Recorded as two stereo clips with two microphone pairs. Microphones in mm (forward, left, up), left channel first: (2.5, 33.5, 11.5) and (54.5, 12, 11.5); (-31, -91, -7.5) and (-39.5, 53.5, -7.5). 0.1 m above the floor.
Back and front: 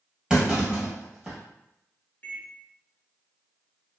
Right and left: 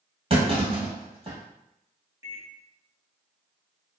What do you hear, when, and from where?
0.3 s a clunk: 55° left, 1.5 m
2.2 s a microwave: 135° left, 1.0 m